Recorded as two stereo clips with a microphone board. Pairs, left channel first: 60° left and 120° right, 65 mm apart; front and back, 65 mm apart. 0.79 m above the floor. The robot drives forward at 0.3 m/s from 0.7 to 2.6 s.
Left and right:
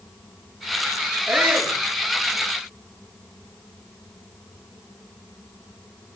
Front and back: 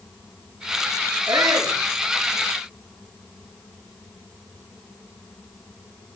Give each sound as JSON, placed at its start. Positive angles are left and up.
{"t": 1.3, "sound": "a shout", "azimuth_deg": 180, "distance_m": 9.5}